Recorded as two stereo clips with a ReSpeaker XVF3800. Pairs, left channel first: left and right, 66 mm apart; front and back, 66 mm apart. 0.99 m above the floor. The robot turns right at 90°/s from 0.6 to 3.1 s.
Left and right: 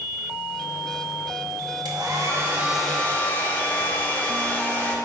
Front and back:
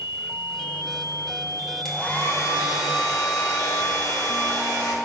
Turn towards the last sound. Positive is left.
turn(degrees=25)